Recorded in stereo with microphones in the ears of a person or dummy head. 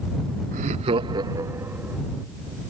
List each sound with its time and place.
0.5 s laughter: 35° right (ahead or behind); by 2.0 s centre (ahead or behind)